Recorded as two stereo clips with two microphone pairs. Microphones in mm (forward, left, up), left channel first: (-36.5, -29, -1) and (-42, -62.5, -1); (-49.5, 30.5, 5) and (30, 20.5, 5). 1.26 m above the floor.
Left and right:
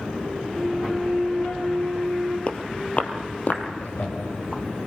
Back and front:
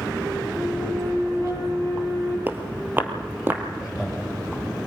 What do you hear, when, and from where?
0.5 s a flute: 40° left, 4.5 m
2.5 s footsteps: 50° left, 1.9 m; by 3.6 s 55° left, 3 m
3.8 s laughter: 80° left, 7 m